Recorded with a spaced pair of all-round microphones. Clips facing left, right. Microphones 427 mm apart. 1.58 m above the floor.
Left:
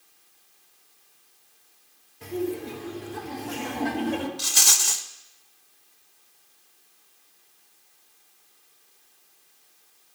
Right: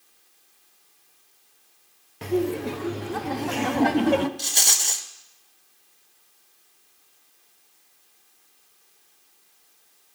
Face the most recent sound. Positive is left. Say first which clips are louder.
# right 1 dB
turn(degrees=25)  # may be behind; listen again after turning